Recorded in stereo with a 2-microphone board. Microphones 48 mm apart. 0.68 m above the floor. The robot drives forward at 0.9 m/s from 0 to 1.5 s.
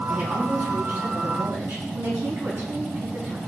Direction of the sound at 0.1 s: 45° right (ahead or behind).